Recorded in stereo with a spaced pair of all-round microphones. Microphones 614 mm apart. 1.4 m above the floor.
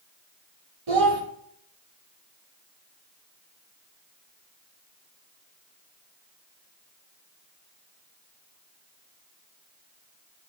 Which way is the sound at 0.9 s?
50° right (ahead or behind).